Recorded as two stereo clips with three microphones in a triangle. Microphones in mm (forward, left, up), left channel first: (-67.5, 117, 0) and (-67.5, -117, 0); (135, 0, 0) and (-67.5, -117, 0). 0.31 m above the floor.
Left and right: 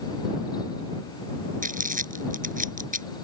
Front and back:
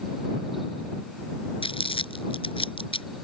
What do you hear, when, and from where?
1.6 s crumpling: 35° right